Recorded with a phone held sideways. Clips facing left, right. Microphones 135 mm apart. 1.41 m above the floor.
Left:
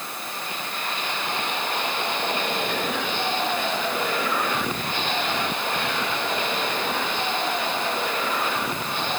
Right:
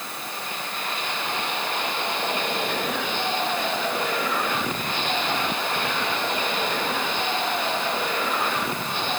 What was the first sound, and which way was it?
Only background noise.